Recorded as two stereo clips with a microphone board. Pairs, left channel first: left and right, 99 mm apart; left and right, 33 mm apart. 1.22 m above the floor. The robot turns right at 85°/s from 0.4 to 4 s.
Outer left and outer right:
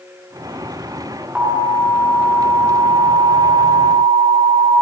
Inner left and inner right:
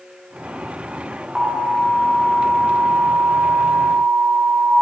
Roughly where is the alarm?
Behind.